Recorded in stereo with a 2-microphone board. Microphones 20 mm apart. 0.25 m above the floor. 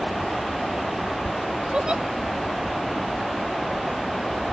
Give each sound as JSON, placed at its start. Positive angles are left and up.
{"t": 1.7, "sound": "a giggle", "side_deg": -50}